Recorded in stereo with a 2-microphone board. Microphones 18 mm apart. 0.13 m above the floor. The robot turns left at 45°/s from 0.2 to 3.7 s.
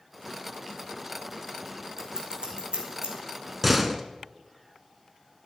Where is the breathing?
No breathing in this recording.